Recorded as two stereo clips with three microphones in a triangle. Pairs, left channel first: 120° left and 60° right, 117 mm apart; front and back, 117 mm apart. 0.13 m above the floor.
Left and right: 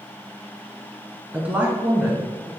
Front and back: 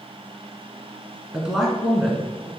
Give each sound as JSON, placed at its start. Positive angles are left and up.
{"t": 1.3, "sound": "a woman speaking", "azimuth_deg": -105, "distance_m": 1.1}